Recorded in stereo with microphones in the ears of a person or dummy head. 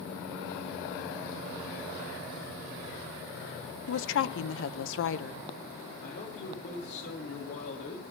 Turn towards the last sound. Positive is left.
turn(degrees=45)  # may be behind; listen again after turning